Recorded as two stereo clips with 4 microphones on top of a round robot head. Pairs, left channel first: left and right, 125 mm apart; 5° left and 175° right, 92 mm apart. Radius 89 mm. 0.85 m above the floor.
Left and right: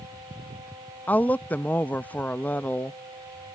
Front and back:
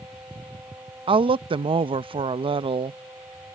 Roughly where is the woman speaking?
Behind.